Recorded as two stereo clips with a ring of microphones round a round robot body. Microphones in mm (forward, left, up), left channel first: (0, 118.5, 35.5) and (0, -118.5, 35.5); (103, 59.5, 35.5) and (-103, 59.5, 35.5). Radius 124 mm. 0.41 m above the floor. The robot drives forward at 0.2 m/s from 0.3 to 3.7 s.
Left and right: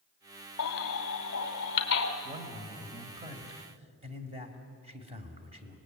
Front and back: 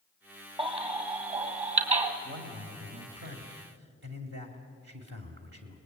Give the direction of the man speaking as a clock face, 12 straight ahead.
5 o'clock.